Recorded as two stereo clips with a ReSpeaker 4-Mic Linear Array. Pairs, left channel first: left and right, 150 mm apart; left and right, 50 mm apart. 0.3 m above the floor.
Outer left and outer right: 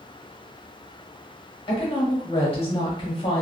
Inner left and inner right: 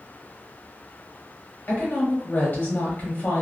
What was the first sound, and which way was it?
A woman speaking, 35° left (ahead or behind).